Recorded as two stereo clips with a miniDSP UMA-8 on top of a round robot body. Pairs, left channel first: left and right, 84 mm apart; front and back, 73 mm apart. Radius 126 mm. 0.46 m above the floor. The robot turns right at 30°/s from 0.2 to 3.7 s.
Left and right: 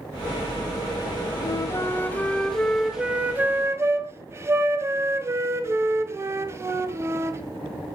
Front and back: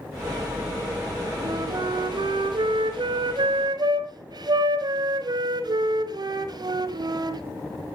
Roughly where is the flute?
Behind left.